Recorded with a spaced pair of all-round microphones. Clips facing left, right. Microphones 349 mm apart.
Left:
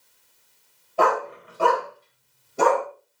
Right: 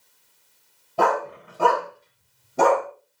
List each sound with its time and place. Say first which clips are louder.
1.0 s a dog barking: even; 50° right (ahead or behind), 3.5 m; by 2.9 s 70° right (ahead or behind), 4 m